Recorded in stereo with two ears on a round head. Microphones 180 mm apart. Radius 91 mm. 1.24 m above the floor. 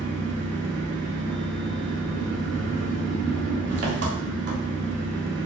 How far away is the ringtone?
No ringtone in this recording.